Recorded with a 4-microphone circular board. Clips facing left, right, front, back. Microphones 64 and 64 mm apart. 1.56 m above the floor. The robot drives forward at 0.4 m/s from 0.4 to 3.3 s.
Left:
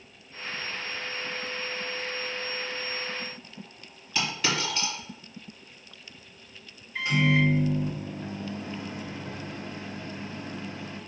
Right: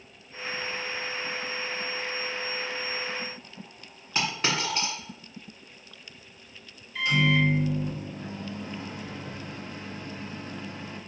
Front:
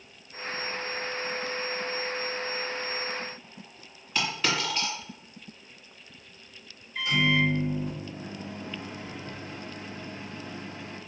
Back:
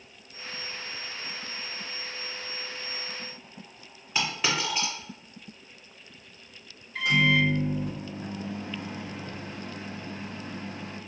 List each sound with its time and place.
4.2 s a dropped coin: 120° right, 1.7 m
7.0 s a microwave: 155° left, 1.1 m